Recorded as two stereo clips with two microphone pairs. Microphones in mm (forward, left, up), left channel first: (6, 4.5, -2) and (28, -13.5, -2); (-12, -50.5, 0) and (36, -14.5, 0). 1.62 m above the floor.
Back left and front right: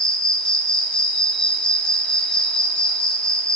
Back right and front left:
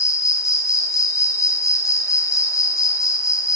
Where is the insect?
160° right, 0.8 m.